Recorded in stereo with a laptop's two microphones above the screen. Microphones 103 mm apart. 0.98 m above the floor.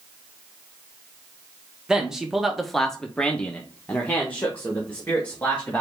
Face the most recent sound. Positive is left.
turn(degrees=15)  # may be behind; listen again after turning